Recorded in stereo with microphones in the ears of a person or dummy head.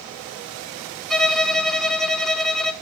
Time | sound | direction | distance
1.1 | a violin | 5° left (ahead or behind) | 0.8 m